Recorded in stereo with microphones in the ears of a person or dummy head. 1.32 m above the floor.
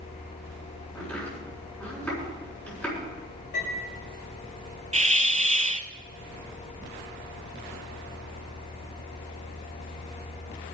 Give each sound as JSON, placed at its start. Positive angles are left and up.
{"t": 0.9, "sound": "chopping", "side_deg": 5, "distance_m": 6.0}
{"t": 3.5, "sound": "a piano", "side_deg": 55, "distance_m": 6.0}
{"t": 4.9, "sound": "a hiss", "side_deg": -30, "distance_m": 0.7}